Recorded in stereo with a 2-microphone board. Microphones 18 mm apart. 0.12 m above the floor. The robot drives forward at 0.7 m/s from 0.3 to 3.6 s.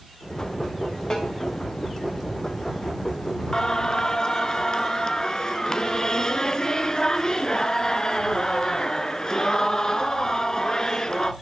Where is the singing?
35° left (ahead or behind), 0.9 m.